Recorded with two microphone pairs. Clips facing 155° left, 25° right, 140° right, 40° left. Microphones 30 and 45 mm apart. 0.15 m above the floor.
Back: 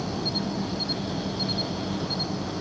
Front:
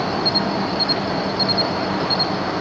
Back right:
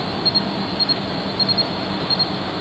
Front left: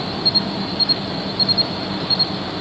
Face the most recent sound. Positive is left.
turn(degrees=-60)